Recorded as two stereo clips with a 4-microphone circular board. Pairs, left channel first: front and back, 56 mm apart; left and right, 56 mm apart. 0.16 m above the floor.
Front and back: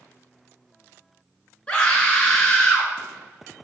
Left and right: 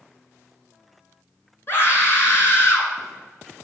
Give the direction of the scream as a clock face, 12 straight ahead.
10 o'clock.